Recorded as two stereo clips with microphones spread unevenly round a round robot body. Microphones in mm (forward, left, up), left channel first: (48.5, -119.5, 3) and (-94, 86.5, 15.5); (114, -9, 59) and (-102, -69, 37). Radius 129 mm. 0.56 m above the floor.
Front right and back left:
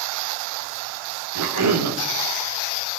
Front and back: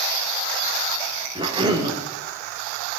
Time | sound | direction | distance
1.4 | a cough | 130° left | 1.5 m